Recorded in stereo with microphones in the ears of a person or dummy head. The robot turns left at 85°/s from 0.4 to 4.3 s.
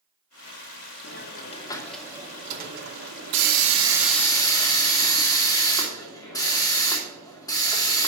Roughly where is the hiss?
Left.